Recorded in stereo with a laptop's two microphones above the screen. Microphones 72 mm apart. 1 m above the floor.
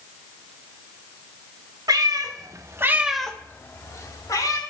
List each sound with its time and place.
1.9 s a cat meowing: 70° right (ahead or behind), 1.4 m; by 4.6 s 60° left (ahead or behind), 1.6 m